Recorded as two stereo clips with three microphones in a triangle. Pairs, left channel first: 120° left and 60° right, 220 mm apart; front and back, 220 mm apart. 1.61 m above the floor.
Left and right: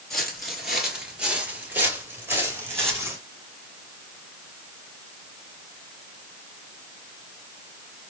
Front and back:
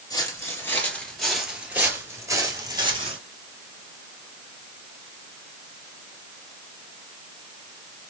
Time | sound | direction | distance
0.1 | footsteps | 35° left | 1.6 m